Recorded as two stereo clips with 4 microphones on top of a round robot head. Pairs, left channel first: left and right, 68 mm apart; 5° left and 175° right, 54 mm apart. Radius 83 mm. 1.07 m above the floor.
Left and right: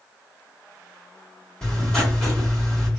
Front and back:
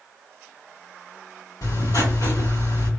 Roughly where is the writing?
Ahead.